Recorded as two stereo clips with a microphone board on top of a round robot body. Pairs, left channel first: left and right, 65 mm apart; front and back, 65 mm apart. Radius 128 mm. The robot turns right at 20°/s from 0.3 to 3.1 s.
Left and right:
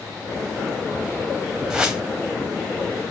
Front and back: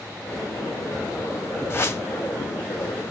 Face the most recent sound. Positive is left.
turn(degrees=10)